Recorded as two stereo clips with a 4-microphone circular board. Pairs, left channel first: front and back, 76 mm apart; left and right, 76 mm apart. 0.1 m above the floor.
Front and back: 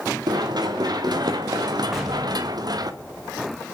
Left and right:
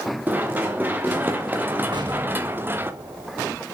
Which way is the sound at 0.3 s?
155° right.